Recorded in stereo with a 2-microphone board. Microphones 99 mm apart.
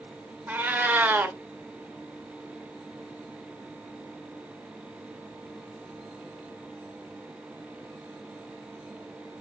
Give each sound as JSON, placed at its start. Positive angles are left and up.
{"t": 0.5, "sound": "a cat meowing", "side_deg": -20, "distance_m": 0.5}